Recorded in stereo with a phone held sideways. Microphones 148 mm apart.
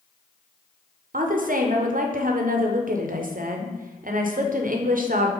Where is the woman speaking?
65° right (ahead or behind), 0.6 m.